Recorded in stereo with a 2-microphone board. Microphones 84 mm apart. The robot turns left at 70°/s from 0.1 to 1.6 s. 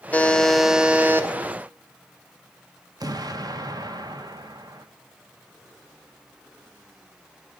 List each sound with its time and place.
0.1 s a buzzer: 30° left, 0.5 m; by 1.3 s 50° right, 0.5 m
3.0 s an explosion: 50° right (ahead or behind), 0.5 m